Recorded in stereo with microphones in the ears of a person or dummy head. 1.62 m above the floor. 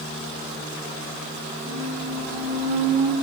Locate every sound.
1.6 s a squeak: 30° right (ahead or behind), 6.5 m